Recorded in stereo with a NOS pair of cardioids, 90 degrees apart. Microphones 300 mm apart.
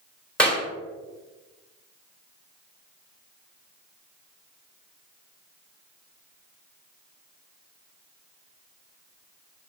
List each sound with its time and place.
0.4 s a clap: 5° left, 1.6 m